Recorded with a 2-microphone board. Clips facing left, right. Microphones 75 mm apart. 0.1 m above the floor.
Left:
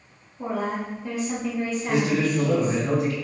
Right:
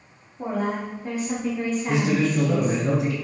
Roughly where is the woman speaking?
Right.